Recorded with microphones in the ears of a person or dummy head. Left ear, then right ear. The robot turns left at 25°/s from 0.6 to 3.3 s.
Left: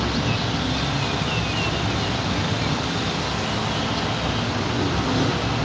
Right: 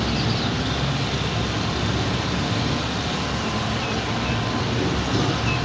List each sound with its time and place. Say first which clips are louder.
0.0 s an insect: even; 150° left, 1.8 m; by 5.7 s 80° left, 1.8 m